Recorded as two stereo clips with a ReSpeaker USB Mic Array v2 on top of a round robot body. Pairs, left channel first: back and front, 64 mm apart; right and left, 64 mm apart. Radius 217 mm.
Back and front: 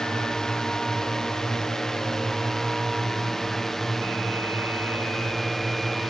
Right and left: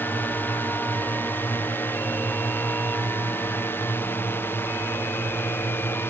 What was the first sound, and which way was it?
A drone, 105° right.